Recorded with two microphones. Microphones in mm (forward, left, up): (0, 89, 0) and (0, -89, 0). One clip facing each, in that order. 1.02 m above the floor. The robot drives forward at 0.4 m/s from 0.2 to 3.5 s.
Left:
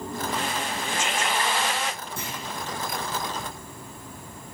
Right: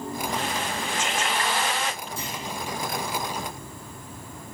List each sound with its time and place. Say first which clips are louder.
2.2 s a clunk: right 1 dB; 65° left (ahead or behind), 3.5 m